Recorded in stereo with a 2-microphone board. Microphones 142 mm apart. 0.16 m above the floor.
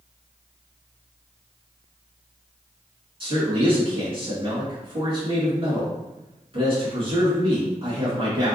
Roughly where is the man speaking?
Right.